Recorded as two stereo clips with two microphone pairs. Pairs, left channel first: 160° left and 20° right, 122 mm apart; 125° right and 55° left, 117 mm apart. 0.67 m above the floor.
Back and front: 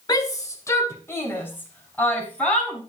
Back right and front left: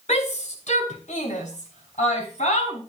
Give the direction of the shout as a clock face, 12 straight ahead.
5 o'clock.